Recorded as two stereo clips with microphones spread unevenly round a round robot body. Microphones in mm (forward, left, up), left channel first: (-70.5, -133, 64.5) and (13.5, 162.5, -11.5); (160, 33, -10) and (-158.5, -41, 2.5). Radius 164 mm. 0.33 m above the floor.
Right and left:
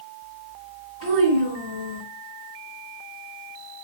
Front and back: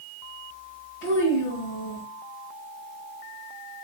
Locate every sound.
1.0 s a child speaking: 35° left, 1.4 m